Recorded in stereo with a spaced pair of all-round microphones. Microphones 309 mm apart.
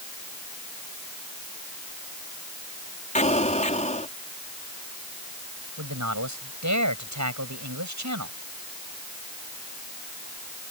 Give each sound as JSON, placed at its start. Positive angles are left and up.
{"t": 3.1, "sound": "an explosion", "side_deg": 25}
{"t": 5.8, "sound": "a man speaking", "side_deg": -70}